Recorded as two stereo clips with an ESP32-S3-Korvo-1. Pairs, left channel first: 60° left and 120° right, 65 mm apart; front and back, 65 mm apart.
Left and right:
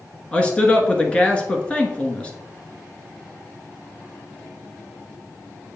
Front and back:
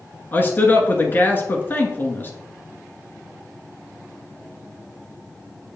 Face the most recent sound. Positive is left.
turn(degrees=5)